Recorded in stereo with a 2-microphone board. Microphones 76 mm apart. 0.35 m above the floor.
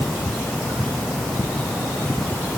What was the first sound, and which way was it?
Only background noise.